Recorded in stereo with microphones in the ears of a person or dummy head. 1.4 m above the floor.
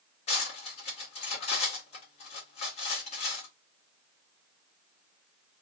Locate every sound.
0.3 s cutlery clinking: 35° left (ahead or behind), 1.4 m